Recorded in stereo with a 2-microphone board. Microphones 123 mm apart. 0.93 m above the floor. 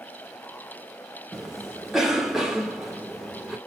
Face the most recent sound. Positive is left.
turn(degrees=0)  # may be behind; listen again after turning